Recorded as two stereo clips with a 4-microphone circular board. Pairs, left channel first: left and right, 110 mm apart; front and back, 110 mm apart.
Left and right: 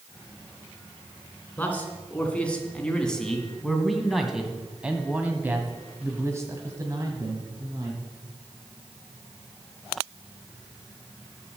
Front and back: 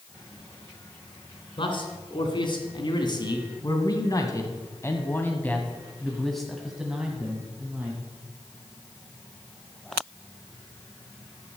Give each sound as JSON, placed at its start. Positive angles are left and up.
{"t": 1.6, "sound": "a man speaking", "azimuth_deg": 20, "distance_m": 2.5}